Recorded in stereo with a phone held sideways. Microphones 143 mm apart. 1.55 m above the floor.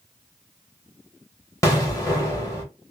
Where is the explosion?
20° left (ahead or behind), 1.1 m.